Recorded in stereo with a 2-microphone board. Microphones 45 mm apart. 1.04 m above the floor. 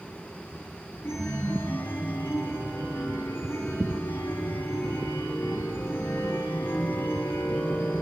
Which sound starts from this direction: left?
A chime, at 1.0 s.